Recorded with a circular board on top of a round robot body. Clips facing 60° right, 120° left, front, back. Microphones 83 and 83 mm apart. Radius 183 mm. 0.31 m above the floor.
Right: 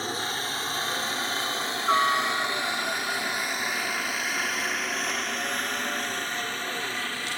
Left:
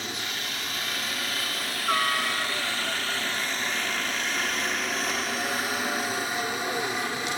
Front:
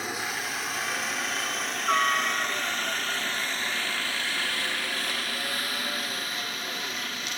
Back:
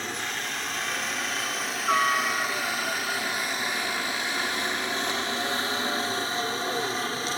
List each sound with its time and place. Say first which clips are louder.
0.0 s a helicopter: right 4 dB, even; 80° right; by 7.4 s 175° left